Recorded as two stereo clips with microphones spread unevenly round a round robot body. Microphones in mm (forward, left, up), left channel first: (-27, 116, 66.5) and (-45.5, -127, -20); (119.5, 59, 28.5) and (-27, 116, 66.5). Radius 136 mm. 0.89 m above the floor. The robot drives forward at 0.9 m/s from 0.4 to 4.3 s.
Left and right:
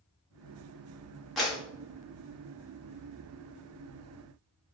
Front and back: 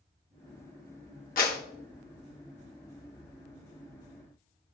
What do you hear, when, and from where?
1.4 s a clap: 10° right, 2 m